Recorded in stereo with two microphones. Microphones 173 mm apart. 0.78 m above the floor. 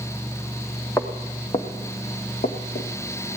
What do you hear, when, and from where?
1.0 s footsteps: 15° left (ahead or behind), 1.9 m; by 2.9 s 60° left (ahead or behind), 2.5 m